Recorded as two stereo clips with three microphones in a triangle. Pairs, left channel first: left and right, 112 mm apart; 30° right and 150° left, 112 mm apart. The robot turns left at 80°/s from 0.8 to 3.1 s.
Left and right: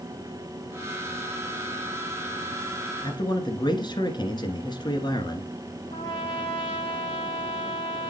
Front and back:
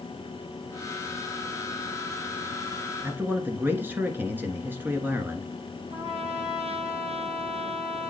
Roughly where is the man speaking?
Left.